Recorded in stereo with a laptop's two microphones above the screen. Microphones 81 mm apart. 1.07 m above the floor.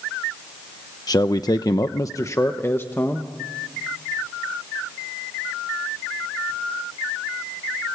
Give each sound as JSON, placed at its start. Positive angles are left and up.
{"t": 1.1, "sound": "a man speaking", "side_deg": 55, "distance_m": 0.8}